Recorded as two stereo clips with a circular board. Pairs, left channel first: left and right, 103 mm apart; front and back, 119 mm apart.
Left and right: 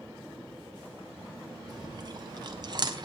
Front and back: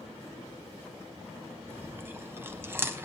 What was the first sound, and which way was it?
Chewing, 115° right.